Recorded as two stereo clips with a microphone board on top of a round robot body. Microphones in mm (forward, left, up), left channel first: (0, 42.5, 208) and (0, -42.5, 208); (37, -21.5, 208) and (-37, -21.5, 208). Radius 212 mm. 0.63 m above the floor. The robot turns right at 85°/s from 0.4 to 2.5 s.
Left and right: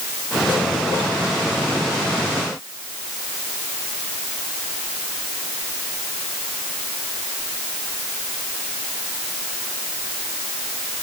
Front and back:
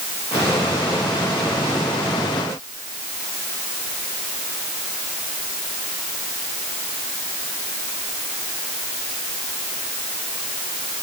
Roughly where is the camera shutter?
No camera shutter in this recording.